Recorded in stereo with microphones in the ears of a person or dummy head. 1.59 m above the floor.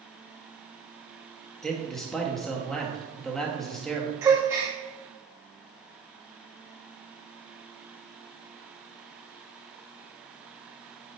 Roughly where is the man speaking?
Centre.